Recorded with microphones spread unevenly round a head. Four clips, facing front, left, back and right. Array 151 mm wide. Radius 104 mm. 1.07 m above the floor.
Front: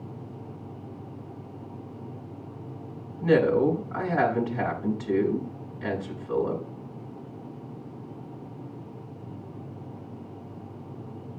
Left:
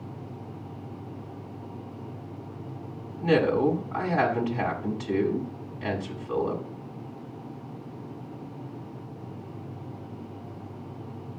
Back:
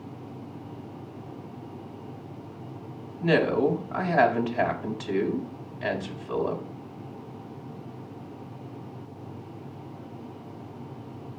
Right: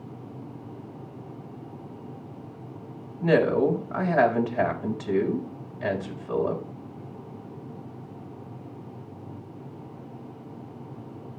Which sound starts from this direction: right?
A woman speaking, at 3.2 s.